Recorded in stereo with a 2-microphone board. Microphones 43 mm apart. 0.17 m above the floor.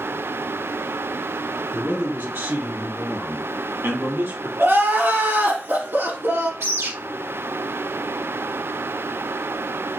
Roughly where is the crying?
Right.